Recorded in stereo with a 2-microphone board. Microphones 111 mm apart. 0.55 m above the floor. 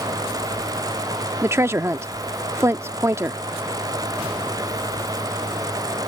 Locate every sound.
1.4 s a woman speaking: 25° right (ahead or behind)